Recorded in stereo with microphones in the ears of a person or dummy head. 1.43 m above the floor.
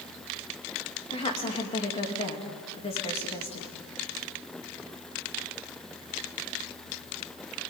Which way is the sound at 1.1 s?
30° left (ahead or behind).